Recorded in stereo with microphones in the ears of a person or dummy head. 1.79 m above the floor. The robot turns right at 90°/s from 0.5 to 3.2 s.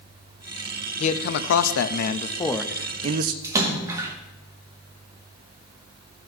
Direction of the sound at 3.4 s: 20° right (ahead or behind).